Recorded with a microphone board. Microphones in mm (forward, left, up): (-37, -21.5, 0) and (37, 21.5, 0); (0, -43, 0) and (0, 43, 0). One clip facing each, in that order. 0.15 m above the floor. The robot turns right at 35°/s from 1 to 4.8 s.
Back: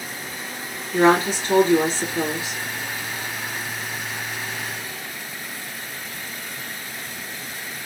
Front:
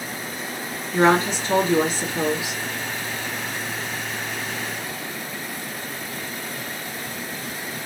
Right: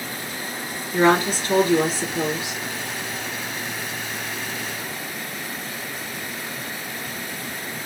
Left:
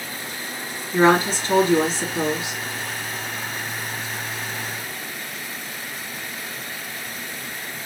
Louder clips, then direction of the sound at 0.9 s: Back 1 dB, left 1 dB; 50° left.